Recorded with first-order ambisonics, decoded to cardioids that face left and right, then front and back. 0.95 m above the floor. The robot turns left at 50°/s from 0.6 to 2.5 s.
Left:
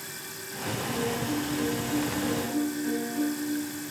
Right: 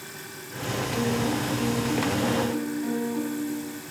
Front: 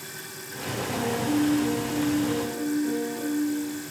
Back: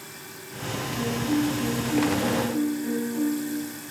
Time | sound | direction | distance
0.9 | a piano | 5° right | 5 m